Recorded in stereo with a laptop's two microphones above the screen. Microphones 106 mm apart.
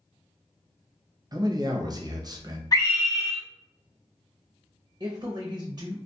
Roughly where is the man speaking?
Right.